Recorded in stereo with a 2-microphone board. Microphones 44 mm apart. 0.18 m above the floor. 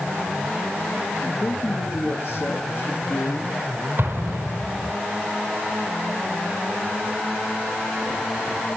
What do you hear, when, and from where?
1.2 s a man speaking: 65° left (ahead or behind), 4 m; by 3.5 s 60° left (ahead or behind), 5 m
4.0 s an explosion: 55° right (ahead or behind), 3 m